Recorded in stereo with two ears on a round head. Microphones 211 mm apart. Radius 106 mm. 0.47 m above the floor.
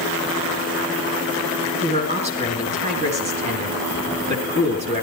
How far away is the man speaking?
About 4 m.